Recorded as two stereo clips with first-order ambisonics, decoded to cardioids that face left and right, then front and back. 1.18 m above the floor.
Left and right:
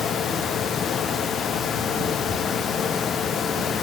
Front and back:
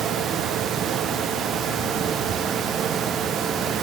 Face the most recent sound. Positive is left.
No sound to turn to.